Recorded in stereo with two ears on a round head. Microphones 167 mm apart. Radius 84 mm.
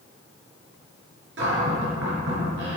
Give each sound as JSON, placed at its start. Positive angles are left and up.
{"t": 1.4, "sound": "a cupboard door", "side_deg": -75, "distance_m": 4.5}